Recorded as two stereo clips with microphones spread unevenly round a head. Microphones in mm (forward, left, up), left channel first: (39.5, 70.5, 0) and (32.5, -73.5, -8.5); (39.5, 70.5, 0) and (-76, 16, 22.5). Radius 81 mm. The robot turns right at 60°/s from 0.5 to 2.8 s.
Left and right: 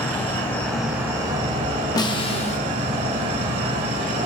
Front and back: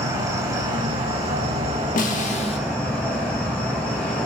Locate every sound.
0.0 s an insect: 160° left, 1.2 m; by 4.3 s 65° right, 1.2 m
2.0 s a snare drum: 30° left, 0.6 m; by 2.6 s 70° left, 0.6 m